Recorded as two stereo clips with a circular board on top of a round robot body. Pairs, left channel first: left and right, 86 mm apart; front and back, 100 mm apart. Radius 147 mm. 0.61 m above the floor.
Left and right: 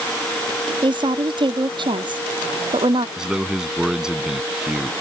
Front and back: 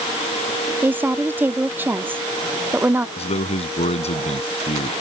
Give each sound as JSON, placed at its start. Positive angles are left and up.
{"t": 0.8, "sound": "a woman speaking", "azimuth_deg": -110}
{"t": 3.2, "sound": "a man speaking", "azimuth_deg": -10}